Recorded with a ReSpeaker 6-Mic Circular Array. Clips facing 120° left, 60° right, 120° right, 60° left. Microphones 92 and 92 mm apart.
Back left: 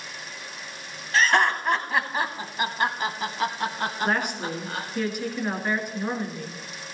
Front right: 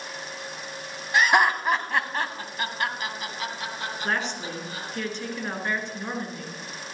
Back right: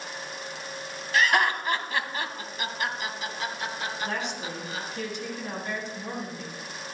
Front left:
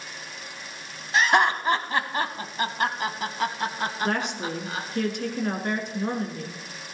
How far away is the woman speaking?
About 3.5 m.